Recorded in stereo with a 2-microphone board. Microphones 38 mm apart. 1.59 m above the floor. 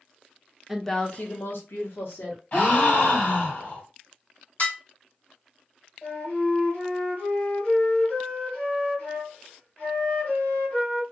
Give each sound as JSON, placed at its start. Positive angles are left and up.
{"t": 0.7, "sound": "a woman speaking", "side_deg": -5, "distance_m": 0.6}
{"t": 2.5, "sound": "a gasp", "side_deg": 40, "distance_m": 2.0}
{"t": 4.6, "sound": "dishes clattering", "side_deg": 45, "distance_m": 1.2}
{"t": 6.0, "sound": "a flute", "side_deg": 45, "distance_m": 1.7}